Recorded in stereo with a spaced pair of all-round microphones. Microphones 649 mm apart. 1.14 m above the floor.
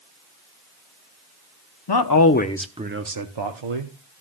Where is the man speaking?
40° left (ahead or behind), 0.7 m; by 3.9 s 55° right (ahead or behind), 0.9 m.